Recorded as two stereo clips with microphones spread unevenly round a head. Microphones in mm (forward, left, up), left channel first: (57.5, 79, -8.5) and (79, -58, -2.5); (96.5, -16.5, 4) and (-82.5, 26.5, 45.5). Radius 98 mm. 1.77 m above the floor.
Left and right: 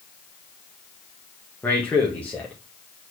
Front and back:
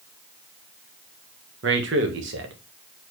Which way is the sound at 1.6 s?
Straight behind.